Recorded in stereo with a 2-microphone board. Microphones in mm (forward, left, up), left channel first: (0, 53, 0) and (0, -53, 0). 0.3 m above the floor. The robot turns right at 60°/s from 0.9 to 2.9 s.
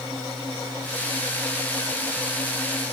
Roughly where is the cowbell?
I don't hear a cowbell.